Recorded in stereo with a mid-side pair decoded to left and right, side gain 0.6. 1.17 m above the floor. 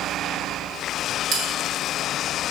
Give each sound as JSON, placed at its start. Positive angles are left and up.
{"t": 1.3, "sound": "a bell", "azimuth_deg": -55, "distance_m": 2.5}